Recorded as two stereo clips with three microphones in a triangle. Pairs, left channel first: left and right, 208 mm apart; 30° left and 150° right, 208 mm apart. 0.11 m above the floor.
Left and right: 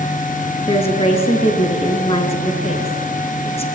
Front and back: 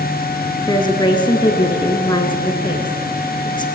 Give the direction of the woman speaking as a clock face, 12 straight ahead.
10 o'clock.